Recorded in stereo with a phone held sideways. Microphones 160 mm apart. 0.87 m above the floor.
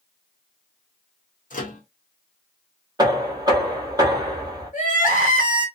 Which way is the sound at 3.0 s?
25° right (ahead or behind).